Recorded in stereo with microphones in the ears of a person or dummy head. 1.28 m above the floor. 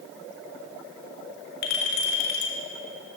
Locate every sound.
1.6 s a clink: 50° left (ahead or behind), 1.8 m